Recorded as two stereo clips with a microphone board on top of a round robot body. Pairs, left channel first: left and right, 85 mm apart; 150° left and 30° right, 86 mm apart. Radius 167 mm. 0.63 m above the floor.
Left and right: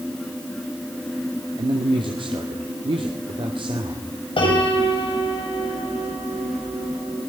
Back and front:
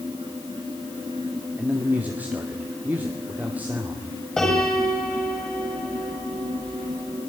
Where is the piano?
65° left, 6.5 m.